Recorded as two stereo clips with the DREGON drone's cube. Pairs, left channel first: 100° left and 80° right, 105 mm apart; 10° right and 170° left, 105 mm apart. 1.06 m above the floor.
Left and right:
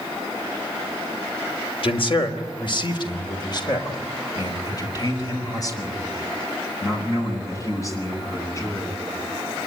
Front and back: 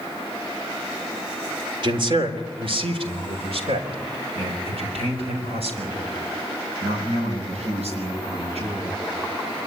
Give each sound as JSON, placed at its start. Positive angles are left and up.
{"t": 1.8, "sound": "a man speaking", "azimuth_deg": 130, "distance_m": 3.5}